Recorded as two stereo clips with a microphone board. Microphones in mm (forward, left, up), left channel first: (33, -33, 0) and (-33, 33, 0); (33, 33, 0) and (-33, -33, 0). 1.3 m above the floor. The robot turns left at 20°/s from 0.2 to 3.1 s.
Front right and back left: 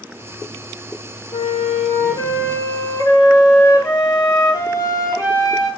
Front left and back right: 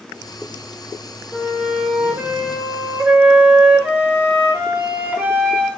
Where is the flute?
35° right, 0.5 m; by 5.7 s 70° right, 0.5 m.